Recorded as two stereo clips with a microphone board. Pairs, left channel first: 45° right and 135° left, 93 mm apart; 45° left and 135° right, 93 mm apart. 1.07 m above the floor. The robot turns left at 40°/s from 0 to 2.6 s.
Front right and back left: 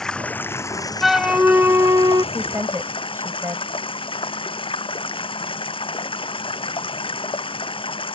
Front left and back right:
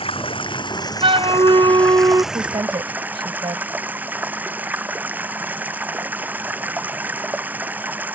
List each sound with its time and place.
0.0 s running water: 40° left; by 8.2 s 65° right
1.0 s a flute: 135° right; by 2.2 s 175° left
2.3 s a woman speaking: 150° right; by 3.7 s 160° right